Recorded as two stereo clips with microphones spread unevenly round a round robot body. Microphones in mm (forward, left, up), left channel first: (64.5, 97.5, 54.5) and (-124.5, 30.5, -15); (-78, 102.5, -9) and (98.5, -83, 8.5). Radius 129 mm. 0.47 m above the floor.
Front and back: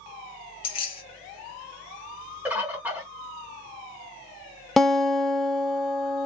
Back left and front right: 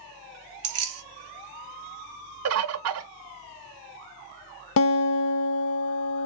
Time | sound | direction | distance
0.6 | keys jangling | 55° right | 0.8 m
2.5 | a bird | 85° right | 0.7 m
4.8 | a guitar | 125° left | 0.6 m